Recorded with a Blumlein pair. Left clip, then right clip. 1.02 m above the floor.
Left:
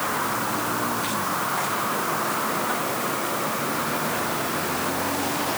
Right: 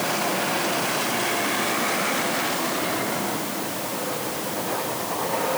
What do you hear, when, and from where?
Only background noise.